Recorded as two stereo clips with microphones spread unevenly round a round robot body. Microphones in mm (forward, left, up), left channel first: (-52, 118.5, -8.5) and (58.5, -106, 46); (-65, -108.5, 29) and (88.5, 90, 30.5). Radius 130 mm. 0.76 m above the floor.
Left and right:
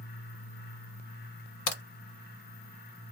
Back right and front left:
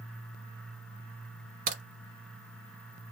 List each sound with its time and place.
1.7 s a crack: 110° left, 1.0 m